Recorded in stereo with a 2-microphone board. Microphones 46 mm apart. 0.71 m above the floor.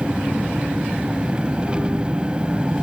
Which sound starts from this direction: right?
An engine running, at 0.0 s.